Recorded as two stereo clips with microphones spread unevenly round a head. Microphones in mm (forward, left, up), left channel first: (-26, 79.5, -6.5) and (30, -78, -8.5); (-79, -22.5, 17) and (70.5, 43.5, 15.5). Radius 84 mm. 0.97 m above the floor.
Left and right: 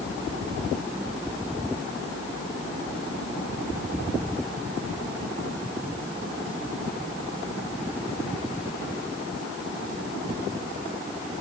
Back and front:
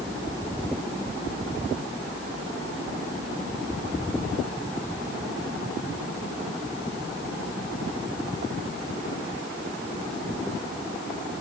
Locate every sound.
Only background noise.